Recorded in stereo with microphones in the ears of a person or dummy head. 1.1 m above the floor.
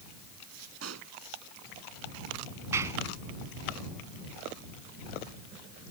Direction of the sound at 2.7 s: 15° right (ahead or behind).